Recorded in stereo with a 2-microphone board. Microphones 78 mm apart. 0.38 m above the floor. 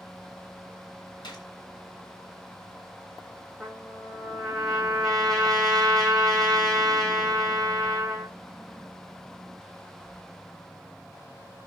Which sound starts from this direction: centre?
A trumpet, at 3.6 s.